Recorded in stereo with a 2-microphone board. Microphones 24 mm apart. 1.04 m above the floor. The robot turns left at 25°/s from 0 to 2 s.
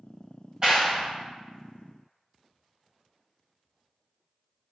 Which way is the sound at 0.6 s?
30° right (ahead or behind).